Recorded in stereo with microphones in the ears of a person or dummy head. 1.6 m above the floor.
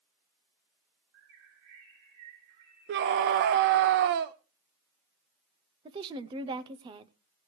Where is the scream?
55° right (ahead or behind), 0.7 m.